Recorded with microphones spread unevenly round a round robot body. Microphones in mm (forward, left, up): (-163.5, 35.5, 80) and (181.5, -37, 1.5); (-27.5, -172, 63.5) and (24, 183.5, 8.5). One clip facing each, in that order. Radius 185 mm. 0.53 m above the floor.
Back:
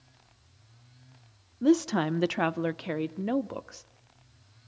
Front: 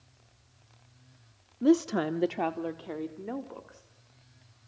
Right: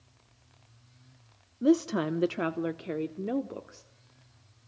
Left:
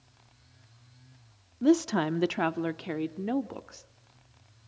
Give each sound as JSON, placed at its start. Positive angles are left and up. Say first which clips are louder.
{"t": 1.6, "sound": "a woman speaking", "louder": "even, left 1 dB", "azimuth_deg": 50, "distance_m": 0.7}